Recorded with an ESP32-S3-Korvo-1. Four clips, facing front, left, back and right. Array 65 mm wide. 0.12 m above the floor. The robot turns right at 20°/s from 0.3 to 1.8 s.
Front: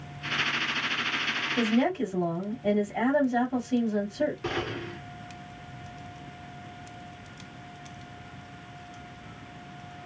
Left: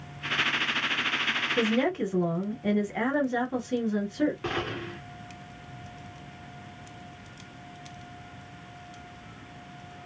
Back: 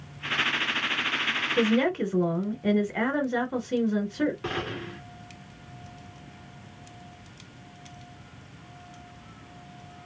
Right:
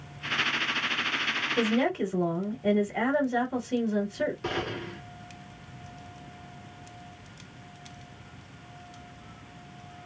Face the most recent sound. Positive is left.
turn(degrees=125)